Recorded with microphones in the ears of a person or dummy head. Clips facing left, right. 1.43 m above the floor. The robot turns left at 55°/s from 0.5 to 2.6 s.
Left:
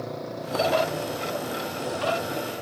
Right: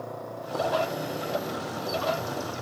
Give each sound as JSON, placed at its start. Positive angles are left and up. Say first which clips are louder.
{"t": 0.0, "sound": "a motorcycle", "louder": "left 3 dB", "azimuth_deg": 25}